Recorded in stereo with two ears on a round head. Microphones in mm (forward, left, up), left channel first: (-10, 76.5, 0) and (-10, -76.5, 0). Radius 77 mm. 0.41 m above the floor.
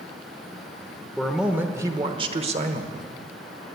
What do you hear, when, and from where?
1.2 s a man speaking: centre (ahead or behind), 1.1 m; by 3.1 s 50° right (ahead or behind), 1.4 m